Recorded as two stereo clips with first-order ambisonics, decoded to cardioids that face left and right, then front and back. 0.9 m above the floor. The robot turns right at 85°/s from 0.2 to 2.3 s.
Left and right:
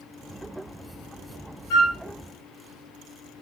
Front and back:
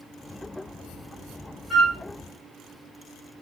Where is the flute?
95° left, 1.0 m; by 2.0 s 115° left, 1.0 m.